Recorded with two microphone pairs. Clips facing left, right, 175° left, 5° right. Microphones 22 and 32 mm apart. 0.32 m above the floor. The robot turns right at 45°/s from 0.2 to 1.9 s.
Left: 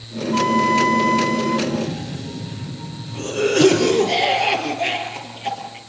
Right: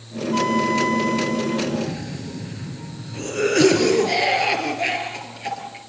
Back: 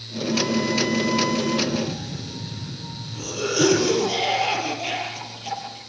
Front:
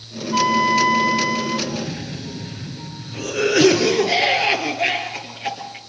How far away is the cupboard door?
No cupboard door in this recording.